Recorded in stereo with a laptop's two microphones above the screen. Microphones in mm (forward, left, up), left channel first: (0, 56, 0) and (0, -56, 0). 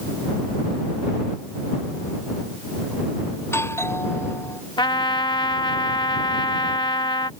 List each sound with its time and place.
3.4 s a doorbell: 25° left (ahead or behind)
4.8 s a trumpet: 45° left (ahead or behind)